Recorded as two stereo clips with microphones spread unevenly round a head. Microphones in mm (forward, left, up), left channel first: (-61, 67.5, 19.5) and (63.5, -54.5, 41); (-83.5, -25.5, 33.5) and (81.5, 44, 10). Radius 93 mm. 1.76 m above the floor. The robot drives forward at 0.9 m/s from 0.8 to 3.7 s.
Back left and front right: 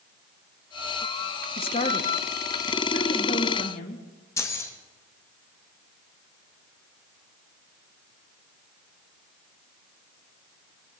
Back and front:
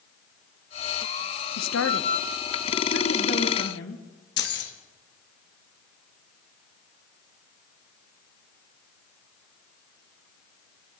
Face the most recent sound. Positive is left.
turn(degrees=-150)